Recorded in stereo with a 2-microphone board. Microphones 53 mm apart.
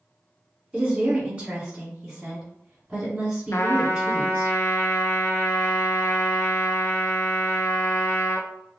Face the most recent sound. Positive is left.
turn(degrees=60)  # may be behind; listen again after turning